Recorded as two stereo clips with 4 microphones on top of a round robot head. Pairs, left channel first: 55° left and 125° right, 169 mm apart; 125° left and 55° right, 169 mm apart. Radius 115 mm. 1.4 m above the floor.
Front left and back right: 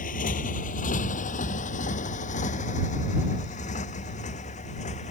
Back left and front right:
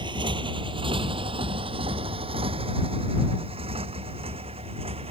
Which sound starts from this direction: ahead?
A motorcycle, at 0.0 s.